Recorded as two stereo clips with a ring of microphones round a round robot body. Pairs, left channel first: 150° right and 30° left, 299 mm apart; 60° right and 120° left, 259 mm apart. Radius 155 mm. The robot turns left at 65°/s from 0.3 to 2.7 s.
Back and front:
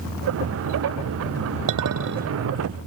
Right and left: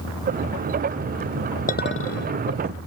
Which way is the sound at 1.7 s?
Straight ahead.